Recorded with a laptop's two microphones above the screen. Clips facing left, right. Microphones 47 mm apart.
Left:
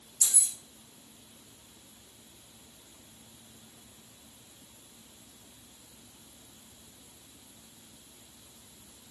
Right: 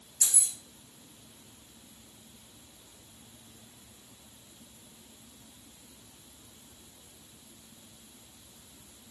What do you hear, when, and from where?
0.2 s keys jangling: 55° right (ahead or behind), 0.6 m